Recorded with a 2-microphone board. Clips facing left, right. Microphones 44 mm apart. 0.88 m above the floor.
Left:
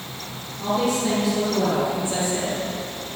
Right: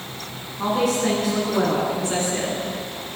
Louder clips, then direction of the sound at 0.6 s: Right 1 dB; 75° right (ahead or behind).